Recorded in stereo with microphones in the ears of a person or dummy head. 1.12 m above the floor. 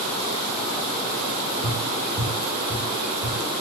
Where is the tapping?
60° right (ahead or behind), 1.2 m.